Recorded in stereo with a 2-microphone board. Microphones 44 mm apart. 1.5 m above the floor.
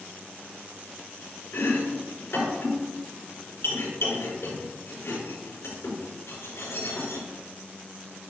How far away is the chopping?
About 4.5 m.